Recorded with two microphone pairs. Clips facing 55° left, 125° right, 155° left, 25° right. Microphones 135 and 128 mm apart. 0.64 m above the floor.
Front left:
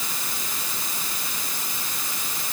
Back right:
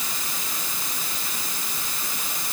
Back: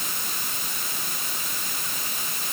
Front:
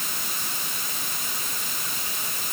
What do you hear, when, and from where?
Only background noise.